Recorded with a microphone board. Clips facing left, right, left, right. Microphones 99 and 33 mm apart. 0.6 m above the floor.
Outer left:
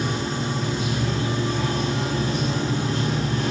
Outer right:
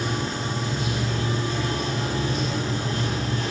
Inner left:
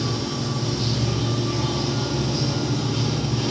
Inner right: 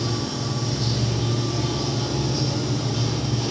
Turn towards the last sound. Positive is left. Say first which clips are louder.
# outer left 2 dB, inner left 1 dB
turn(degrees=85)